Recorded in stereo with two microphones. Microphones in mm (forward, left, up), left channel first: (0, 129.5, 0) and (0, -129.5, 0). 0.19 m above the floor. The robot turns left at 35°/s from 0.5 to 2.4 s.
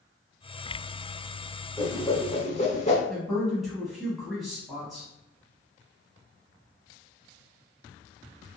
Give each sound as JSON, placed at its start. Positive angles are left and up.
{"t": 1.8, "sound": "a whoosh", "side_deg": 10, "distance_m": 0.6}
{"t": 3.1, "sound": "a woman speaking", "side_deg": 0, "distance_m": 1.0}